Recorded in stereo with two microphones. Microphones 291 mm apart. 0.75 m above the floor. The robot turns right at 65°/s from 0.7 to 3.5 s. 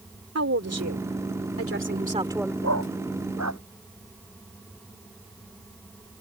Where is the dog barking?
60° right (ahead or behind); by 3.6 s 65° right (ahead or behind).